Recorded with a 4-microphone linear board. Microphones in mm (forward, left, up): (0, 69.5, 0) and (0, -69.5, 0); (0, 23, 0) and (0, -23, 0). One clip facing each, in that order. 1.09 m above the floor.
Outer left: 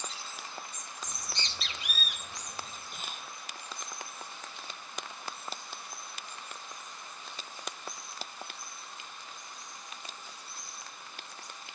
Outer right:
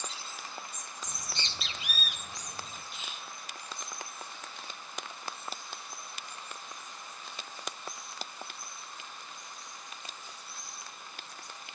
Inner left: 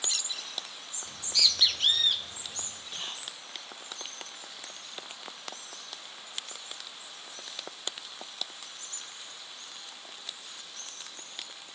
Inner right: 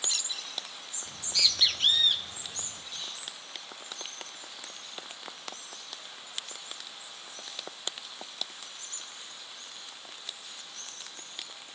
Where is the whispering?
45° left (ahead or behind), 0.8 m.